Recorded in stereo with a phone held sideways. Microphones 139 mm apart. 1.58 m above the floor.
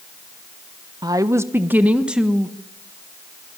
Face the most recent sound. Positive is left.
turn(degrees=0)  # may be behind; listen again after turning